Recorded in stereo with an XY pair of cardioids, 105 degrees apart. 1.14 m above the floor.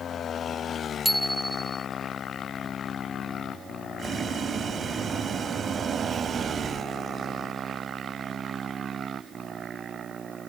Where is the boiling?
50° right.